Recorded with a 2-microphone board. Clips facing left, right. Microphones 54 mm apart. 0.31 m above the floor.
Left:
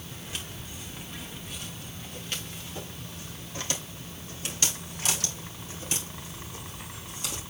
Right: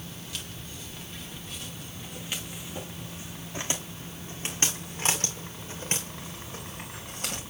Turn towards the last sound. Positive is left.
turn(degrees=-55)  # may be behind; listen again after turning